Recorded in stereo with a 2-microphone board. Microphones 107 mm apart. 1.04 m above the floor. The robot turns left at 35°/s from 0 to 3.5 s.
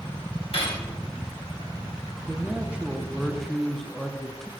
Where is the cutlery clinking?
60° left (ahead or behind), 1.8 m; by 0.8 s 45° left (ahead or behind), 1.8 m.